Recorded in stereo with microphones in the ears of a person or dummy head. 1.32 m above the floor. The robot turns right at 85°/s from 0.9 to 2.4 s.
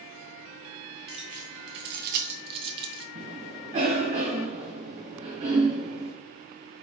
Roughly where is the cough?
Right.